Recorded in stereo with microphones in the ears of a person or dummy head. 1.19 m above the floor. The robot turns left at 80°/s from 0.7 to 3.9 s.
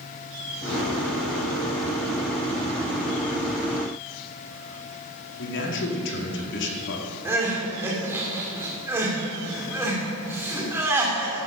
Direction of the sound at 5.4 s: 60° left (ahead or behind).